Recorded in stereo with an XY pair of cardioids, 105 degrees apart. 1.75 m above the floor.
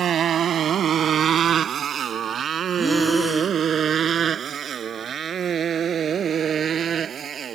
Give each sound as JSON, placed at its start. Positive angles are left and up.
{"t": 0.0, "sound": "a motorcycle", "azimuth_deg": -55}
{"t": 2.8, "sound": "breathing", "azimuth_deg": 5}